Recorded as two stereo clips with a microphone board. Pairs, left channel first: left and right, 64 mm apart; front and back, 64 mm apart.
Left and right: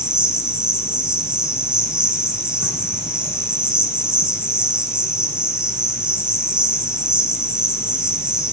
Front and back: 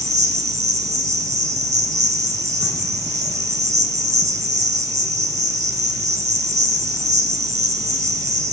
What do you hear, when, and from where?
0.0 s an insect: 160° right, 0.7 m